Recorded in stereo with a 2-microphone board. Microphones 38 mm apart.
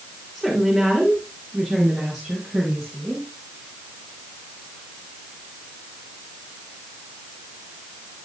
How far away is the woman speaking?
About 3 m.